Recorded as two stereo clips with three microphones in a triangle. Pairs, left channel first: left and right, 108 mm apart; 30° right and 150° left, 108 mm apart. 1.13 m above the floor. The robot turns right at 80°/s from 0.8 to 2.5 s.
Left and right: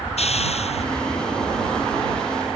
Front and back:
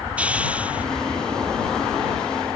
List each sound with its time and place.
0.2 s a hiss: 70° left; by 0.9 s 75° left